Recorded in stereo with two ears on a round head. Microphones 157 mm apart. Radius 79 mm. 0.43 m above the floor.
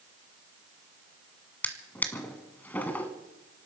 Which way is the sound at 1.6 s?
10° left (ahead or behind).